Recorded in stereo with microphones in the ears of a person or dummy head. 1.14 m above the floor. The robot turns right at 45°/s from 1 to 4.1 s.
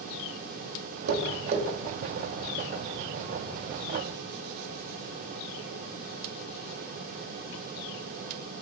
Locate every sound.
1.1 s tapping: 60° right (ahead or behind), 0.6 m; by 1.6 s 35° right (ahead or behind), 0.6 m